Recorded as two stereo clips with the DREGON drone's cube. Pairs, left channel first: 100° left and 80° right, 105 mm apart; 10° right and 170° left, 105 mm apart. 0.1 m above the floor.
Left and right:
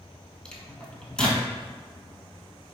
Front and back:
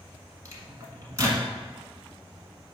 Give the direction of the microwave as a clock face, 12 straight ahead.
6 o'clock.